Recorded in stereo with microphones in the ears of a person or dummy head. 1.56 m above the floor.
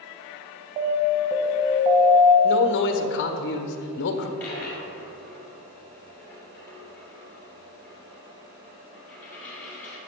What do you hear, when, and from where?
0.8 s an alarm: 40° right (ahead or behind), 1.3 m
2.4 s a man speaking: 55° left (ahead or behind), 1.2 m
4.4 s a dropped coin: 10° left (ahead or behind), 2.0 m